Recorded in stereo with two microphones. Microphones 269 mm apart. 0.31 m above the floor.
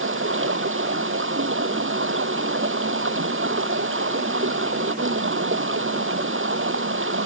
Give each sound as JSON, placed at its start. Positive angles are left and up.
{"t": 0.0, "sound": "running water", "side_deg": -50}